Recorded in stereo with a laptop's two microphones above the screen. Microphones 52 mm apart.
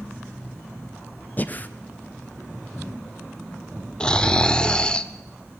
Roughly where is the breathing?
Left.